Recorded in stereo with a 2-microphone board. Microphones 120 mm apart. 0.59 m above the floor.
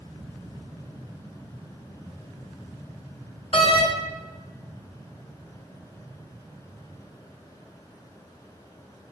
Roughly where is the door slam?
Left.